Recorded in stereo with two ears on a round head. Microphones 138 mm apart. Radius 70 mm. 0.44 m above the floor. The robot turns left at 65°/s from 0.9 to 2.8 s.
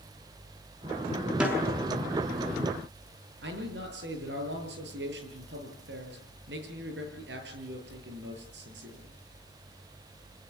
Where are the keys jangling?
I don't hear keys jangling.